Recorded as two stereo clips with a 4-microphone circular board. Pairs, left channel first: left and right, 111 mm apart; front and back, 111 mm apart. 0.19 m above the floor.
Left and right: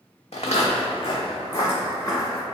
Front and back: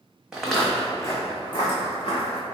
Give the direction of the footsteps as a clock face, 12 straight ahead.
9 o'clock.